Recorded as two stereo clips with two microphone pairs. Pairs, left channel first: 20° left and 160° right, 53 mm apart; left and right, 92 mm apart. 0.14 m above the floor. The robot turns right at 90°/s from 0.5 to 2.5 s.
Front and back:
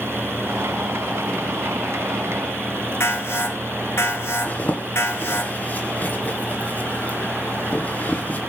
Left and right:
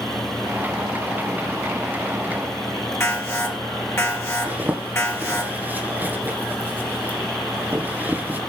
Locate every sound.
3.0 s an alarm: 35° left, 4 m
4.4 s a zipper: 25° right, 2 m